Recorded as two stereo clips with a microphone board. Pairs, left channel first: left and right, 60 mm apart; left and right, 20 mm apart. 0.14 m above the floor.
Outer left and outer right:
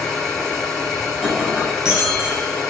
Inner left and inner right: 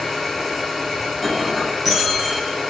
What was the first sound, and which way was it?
An engine running, 5° left (ahead or behind).